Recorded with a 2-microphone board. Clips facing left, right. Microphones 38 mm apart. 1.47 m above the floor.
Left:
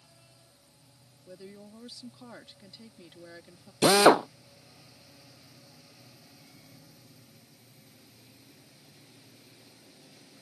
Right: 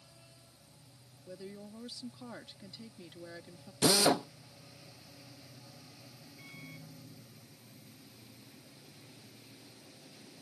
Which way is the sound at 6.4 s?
50° right (ahead or behind).